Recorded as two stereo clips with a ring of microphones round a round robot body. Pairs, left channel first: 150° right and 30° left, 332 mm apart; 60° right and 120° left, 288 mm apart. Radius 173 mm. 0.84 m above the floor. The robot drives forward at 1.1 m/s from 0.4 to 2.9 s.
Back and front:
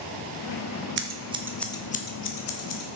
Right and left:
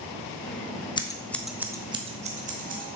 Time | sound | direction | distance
1.0 | scissors | 5° left | 1.1 m